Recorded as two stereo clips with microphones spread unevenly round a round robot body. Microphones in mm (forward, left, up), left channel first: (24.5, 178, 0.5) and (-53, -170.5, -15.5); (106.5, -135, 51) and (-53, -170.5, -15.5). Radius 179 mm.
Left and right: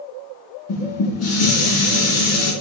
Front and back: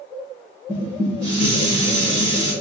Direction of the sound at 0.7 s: 130° left.